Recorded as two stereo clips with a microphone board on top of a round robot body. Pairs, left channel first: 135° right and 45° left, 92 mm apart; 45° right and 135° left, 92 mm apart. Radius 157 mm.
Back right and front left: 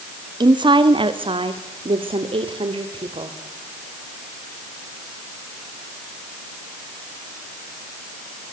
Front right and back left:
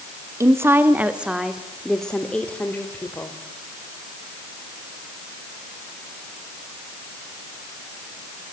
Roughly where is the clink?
I don't hear a clink.